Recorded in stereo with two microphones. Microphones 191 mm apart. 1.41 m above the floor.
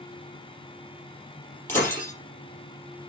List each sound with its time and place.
1.7 s breaking glass: 10° left (ahead or behind), 5 m